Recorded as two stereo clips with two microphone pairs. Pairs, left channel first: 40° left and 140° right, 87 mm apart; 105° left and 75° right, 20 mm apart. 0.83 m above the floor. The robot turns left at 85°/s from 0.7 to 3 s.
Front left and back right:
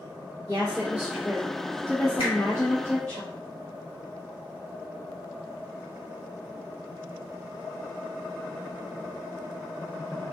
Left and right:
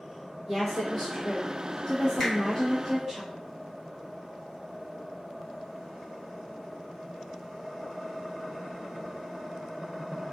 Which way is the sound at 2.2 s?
35° left.